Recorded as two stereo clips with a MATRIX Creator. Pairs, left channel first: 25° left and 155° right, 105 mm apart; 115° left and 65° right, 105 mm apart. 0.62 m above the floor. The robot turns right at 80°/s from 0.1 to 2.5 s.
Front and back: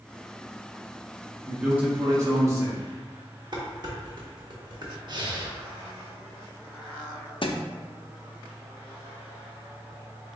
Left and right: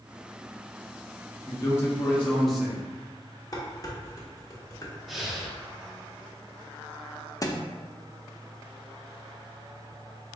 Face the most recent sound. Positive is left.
turn(degrees=55)